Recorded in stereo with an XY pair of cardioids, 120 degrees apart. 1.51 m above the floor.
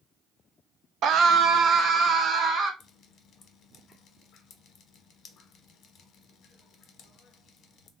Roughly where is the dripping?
Ahead left.